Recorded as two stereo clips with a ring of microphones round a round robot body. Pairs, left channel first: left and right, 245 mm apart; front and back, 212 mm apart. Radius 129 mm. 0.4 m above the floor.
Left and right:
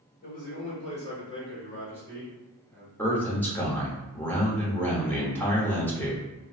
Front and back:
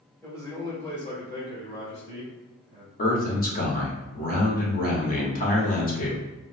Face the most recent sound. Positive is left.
turn(degrees=10)